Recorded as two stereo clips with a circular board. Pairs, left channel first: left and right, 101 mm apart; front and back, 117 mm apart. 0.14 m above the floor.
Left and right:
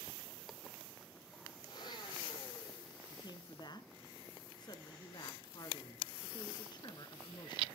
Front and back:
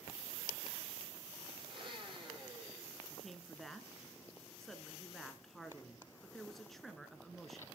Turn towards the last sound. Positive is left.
turn(degrees=90)